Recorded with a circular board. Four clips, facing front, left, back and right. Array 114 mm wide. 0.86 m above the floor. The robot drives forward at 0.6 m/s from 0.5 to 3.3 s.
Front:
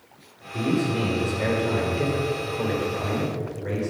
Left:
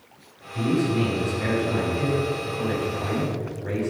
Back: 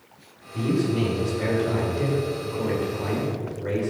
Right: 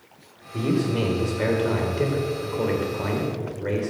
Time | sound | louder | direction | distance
0.5 | a man speaking | left 1 dB, back 1 dB | 70° right | 3.5 m